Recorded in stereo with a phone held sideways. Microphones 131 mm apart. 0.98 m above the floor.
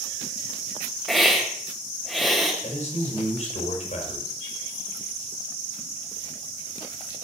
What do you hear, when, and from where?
1.1 s a hiss: centre (ahead or behind), 2.5 m
2.6 s a man speaking: 65° left (ahead or behind), 4 m